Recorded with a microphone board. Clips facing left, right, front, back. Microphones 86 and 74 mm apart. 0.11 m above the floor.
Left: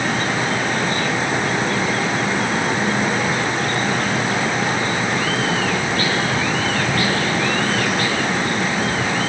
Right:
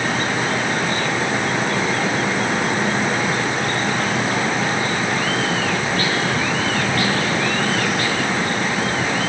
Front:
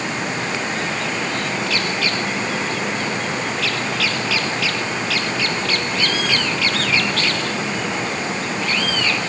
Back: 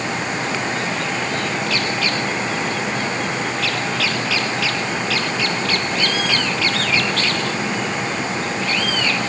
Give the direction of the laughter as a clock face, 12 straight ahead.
No laughter in this recording.